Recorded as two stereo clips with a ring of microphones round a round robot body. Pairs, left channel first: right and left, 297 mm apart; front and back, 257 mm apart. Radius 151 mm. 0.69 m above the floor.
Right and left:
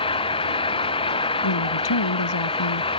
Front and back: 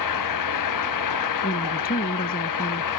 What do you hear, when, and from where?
0.0 s an engine running: 15° right
1.4 s a woman speaking: 65° right